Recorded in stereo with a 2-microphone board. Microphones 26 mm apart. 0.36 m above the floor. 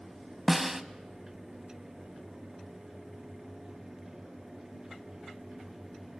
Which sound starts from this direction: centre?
A snare drum, at 0.5 s.